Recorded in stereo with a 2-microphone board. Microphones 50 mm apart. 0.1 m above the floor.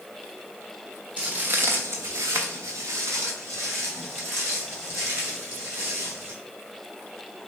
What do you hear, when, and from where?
1.2 s footsteps: 20° right (ahead or behind), 0.7 m; by 6.3 s 45° right (ahead or behind), 3.5 m